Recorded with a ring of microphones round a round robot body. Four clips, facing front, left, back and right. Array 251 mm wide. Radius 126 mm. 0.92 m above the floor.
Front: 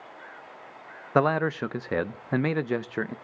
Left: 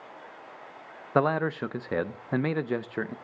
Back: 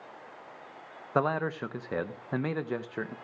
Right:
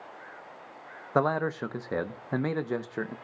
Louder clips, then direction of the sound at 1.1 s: Left 1 dB, front 5 dB; 20° left.